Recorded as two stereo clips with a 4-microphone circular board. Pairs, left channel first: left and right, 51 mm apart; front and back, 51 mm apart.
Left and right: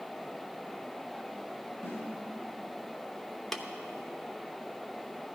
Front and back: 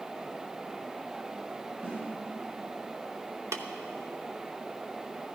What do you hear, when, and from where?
1.8 s a snare drum: 135° left, 6.5 m
3.5 s tapping: 175° left, 0.9 m